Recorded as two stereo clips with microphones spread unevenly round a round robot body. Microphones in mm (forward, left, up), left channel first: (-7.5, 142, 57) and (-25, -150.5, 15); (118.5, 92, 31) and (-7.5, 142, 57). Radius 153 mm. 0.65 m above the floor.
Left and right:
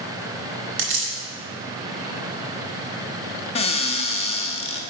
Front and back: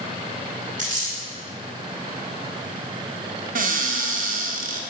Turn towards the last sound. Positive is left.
turn(degrees=160)